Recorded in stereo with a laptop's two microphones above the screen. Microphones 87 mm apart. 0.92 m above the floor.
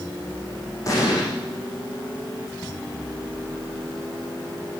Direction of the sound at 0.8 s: 40° left (ahead or behind).